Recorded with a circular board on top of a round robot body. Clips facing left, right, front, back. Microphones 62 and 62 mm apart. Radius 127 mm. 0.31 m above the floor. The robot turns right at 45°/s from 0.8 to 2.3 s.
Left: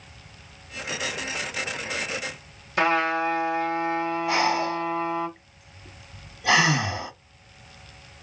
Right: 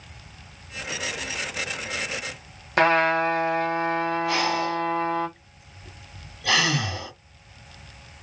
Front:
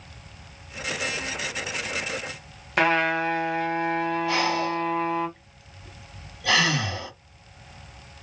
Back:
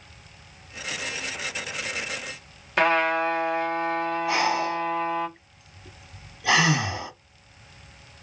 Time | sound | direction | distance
2.8 | a trumpet | 90° right | 2 m
4.3 | breathing | 130° left | 1.2 m